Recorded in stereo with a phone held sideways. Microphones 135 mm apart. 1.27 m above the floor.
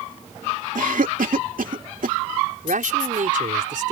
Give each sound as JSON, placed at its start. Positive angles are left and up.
{"t": 0.8, "sound": "a cough", "side_deg": -85}
{"t": 2.6, "sound": "a man speaking", "side_deg": -80}